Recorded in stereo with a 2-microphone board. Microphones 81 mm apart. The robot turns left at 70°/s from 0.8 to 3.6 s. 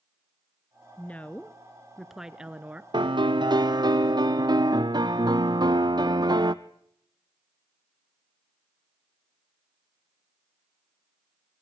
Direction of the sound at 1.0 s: 20° left (ahead or behind).